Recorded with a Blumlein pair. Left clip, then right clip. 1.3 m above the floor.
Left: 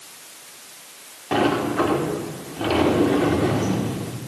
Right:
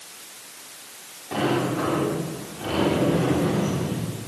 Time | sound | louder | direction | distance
1.3 | a sliding door | left 4 dB | 65° left | 4.5 m